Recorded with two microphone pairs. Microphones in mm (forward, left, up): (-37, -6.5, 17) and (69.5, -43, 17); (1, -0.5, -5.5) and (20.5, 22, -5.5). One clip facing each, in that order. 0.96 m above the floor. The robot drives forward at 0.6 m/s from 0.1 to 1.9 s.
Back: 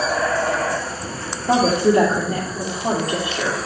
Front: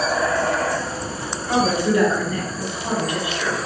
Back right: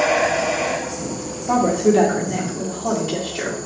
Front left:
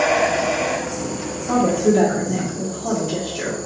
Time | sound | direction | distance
1.5 | a woman speaking | straight behind | 1.7 m